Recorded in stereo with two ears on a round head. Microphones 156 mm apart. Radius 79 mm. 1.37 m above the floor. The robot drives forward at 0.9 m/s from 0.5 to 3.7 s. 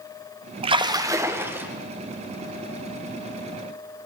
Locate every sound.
0.6 s a splash: 35° right (ahead or behind), 0.5 m; by 1.7 s 10° right (ahead or behind), 1.4 m